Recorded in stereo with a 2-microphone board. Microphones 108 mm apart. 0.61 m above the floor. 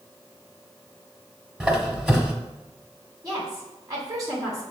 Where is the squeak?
5° right (ahead or behind), 0.8 m.